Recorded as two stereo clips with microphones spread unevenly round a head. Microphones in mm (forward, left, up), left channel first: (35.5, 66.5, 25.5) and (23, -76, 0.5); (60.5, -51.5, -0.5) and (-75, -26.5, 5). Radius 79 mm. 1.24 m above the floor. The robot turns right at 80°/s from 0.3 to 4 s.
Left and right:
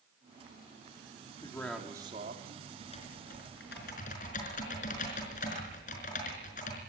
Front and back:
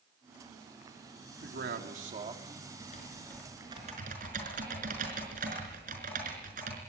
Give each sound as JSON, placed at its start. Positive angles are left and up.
{"t": 1.4, "sound": "a man speaking", "azimuth_deg": 150, "distance_m": 3.5}
{"t": 2.8, "sound": "typing on a keyboard", "azimuth_deg": 30, "distance_m": 5.0}